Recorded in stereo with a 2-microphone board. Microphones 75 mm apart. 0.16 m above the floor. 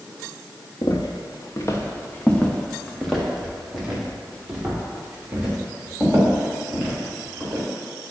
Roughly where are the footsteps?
Left.